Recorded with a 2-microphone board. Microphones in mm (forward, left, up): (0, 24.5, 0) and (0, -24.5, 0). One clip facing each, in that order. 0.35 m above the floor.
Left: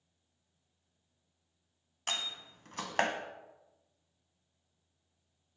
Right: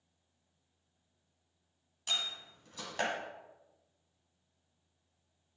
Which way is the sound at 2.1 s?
55° left (ahead or behind).